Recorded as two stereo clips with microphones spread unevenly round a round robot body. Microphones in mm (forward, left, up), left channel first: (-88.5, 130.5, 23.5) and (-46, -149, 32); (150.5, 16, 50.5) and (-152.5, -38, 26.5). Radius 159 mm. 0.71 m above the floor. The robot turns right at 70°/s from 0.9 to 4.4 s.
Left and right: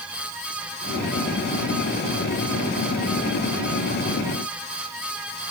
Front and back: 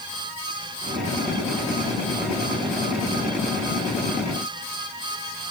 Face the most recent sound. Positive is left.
No sound to turn to.